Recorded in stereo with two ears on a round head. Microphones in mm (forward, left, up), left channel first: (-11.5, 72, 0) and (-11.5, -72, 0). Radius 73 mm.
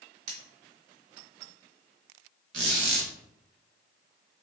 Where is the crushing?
No crushing in this recording.